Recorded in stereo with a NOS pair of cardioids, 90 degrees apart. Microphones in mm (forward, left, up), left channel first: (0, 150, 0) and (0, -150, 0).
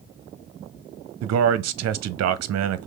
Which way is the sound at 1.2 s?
60° right.